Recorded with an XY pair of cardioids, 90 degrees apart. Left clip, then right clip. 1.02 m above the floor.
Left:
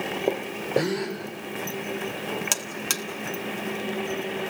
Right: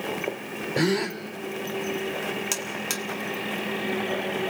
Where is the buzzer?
35° left, 1.7 m.